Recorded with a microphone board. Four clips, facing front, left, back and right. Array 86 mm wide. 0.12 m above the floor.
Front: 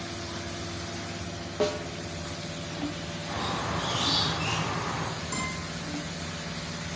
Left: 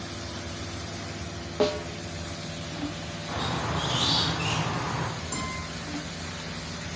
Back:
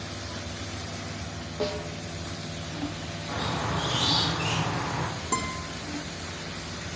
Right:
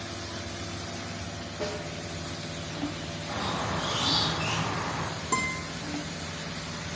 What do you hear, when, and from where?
1.6 s a snare drum: 75° left, 0.7 m
3.3 s a squeak: 125° left, 2.5 m
5.3 s a guitar: 155° right, 1.7 m